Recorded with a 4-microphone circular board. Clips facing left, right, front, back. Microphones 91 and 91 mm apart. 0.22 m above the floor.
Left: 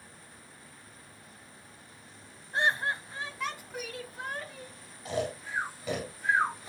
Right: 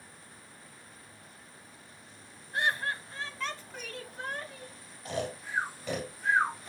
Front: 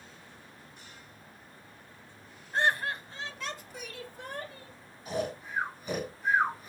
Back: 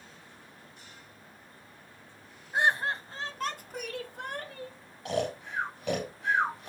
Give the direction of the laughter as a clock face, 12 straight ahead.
8 o'clock.